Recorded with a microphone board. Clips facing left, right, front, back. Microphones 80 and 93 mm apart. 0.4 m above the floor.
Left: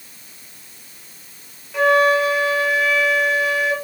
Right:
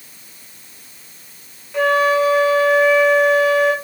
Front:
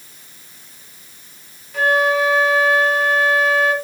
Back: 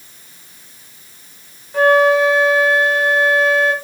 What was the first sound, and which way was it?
A flute, 170° left.